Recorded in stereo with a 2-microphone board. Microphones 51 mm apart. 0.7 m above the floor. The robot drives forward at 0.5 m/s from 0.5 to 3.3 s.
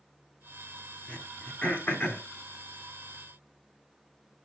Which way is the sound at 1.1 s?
35° left (ahead or behind).